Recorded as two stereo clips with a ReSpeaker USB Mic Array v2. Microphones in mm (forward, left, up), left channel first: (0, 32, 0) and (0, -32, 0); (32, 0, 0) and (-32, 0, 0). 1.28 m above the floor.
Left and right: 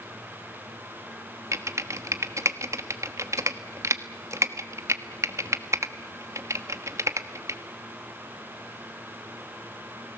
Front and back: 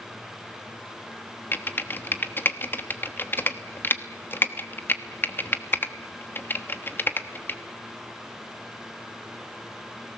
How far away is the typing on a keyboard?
About 1.2 m.